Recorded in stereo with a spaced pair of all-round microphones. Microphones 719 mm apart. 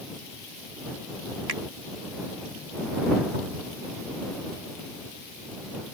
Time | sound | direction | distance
1.5 | a finger snap | 55° right (ahead or behind) | ?
3.3 | a cupboard door | 85° right | ?